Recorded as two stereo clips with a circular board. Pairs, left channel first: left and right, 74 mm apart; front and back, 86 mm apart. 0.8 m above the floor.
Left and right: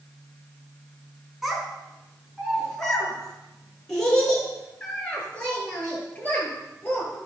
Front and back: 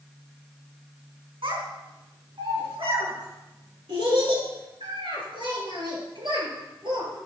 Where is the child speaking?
175° right, 4 m; by 7.2 s 160° left, 8 m.